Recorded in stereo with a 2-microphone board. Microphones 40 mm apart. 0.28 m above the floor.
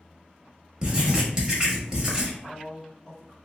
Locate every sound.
0.8 s writing: 20° right (ahead or behind), 0.9 m
2.4 s a man speaking: 15° left (ahead or behind), 1.1 m